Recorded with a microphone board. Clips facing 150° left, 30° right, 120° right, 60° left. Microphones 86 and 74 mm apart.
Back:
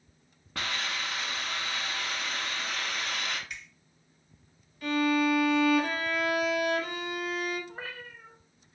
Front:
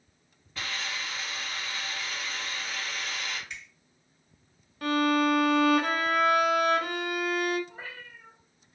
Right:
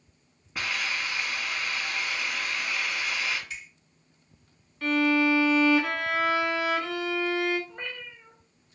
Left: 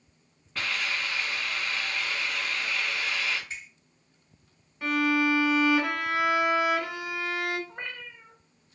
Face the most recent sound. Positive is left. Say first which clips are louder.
# back 2 dB, even
turn(degrees=120)